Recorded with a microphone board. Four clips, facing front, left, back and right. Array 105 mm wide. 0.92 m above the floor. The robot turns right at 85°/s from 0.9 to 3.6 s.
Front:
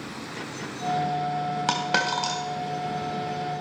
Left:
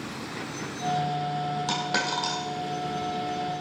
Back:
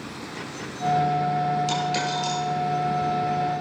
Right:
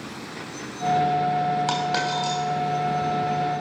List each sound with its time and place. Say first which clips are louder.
1.7 s a dropped coin: right 4 dB, even; 20° right, 2.5 m; by 2.4 s 40° left, 2.5 m